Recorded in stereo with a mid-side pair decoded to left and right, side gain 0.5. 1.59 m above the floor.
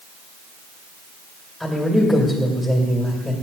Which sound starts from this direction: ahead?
A man speaking, at 1.6 s.